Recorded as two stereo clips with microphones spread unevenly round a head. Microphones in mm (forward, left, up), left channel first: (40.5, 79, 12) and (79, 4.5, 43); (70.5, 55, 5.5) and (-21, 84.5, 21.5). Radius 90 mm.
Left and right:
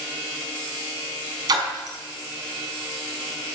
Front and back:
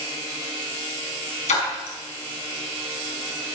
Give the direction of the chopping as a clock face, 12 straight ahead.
I don't hear chopping.